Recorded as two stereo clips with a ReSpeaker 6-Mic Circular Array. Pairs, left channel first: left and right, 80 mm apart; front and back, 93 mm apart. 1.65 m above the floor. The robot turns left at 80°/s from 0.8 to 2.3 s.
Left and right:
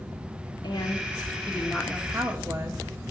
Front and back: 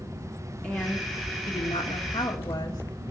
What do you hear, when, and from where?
0.6 s a woman speaking: 75° left, 2.0 m; by 2.8 s 45° right, 2.0 m